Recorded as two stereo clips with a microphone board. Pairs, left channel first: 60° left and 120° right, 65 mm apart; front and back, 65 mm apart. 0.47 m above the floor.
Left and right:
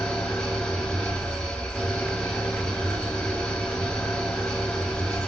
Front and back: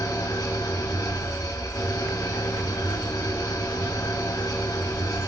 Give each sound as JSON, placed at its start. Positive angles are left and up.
{"t": 0.0, "sound": "an engine running", "azimuth_deg": -15, "distance_m": 0.8}